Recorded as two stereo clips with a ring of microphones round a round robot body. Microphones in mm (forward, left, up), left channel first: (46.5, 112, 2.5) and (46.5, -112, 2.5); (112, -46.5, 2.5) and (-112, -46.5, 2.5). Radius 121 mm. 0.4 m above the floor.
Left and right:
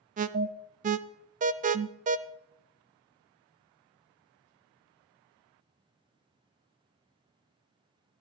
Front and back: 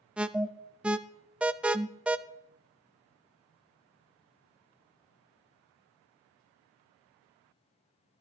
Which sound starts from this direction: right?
An alarm, at 0.2 s.